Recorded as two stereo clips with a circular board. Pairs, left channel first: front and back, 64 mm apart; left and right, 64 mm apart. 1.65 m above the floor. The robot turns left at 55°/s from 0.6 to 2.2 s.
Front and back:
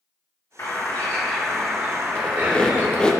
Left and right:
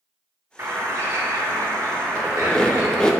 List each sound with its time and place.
0.6 s a bird: 40° right, 1.8 m; by 3.1 s 130° right, 1.8 m
2.1 s a squeak: 45° left, 0.7 m; by 3.1 s 40° left, 0.7 m